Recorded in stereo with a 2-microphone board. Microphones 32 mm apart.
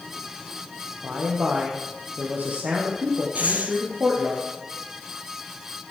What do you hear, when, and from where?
1.0 s a man speaking: 70° right (ahead or behind), 3.5 m
3.4 s breathing: 60° right (ahead or behind), 1.8 m